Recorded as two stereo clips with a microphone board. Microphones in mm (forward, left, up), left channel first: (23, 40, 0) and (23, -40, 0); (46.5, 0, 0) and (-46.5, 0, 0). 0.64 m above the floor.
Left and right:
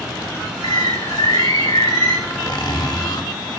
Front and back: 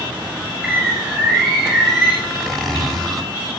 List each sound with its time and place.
0.6 s a bird: 90° left, 8 m
2.2 s a zipper: 85° left, 2.5 m